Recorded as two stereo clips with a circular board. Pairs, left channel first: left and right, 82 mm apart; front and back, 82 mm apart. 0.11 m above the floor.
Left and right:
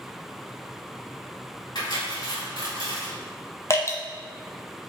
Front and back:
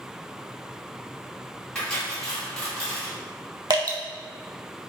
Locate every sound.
1.8 s cutlery clinking: 75° left, 1.3 m
3.7 s dripping: 145° left, 0.5 m